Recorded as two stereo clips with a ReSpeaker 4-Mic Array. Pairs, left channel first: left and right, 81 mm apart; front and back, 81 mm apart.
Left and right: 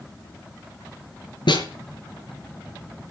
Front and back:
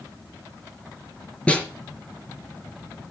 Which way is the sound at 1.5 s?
75° left.